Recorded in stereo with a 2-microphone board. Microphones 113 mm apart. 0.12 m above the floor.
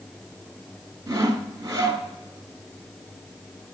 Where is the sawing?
25° right (ahead or behind), 1.2 m.